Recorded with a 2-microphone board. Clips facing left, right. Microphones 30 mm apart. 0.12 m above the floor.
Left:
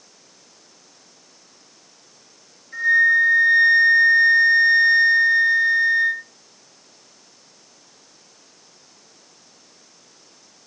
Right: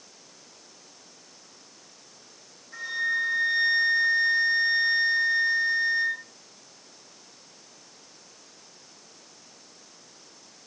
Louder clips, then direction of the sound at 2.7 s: Left 12 dB; centre (ahead or behind).